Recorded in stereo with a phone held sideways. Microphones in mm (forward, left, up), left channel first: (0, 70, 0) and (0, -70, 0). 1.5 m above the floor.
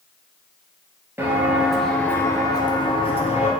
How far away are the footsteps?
About 2.0 m.